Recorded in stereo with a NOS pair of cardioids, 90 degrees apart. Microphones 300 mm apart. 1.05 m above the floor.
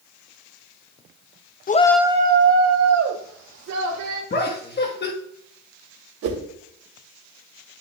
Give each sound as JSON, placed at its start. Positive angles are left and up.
{"t": 1.7, "sound": "a shout", "azimuth_deg": 30, "distance_m": 0.8}
{"t": 4.3, "sound": "laughter", "azimuth_deg": 35, "distance_m": 1.2}
{"t": 6.2, "sound": "a whoosh", "azimuth_deg": -65, "distance_m": 2.5}